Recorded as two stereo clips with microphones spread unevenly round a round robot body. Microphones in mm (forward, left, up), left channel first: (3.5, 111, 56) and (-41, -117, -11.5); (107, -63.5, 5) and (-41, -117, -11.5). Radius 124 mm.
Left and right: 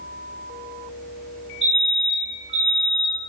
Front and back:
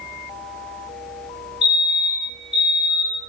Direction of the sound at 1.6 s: 120° right.